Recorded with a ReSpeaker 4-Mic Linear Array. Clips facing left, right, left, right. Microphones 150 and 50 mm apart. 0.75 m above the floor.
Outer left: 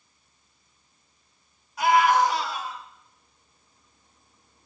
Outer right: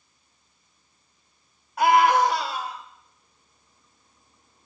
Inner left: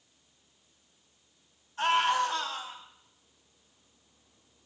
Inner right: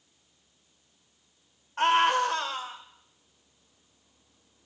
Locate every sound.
1.8 s a scream: 60° right (ahead or behind), 3 m; by 2.8 s 65° right (ahead or behind), 4 m